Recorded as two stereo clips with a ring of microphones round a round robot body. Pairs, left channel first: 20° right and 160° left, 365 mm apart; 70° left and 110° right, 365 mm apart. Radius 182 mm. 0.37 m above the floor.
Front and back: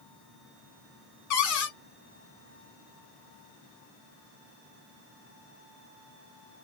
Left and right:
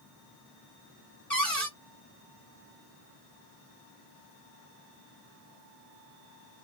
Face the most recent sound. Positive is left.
turn(degrees=-20)